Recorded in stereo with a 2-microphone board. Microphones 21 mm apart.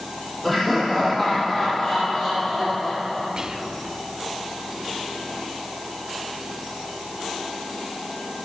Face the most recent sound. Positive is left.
turn(degrees=-35)  # may be behind; listen again after turning